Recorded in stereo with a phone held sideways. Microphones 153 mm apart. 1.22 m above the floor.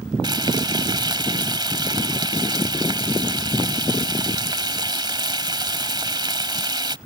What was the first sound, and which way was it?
Frying, 30° right (ahead or behind).